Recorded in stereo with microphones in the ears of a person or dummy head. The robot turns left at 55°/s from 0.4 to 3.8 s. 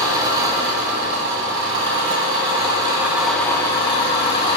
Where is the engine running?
20° right, 3.5 m; by 4.6 s 150° left, 3.5 m.